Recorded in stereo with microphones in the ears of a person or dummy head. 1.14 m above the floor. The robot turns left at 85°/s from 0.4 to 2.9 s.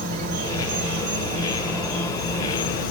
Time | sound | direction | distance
0.0 | an insect | 50° right | 2.5 m